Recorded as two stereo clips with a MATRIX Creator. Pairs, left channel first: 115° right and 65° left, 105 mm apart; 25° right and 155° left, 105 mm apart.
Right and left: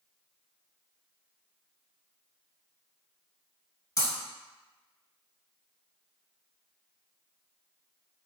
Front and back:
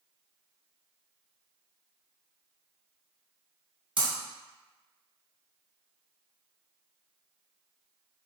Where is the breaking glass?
165° right, 1.4 m.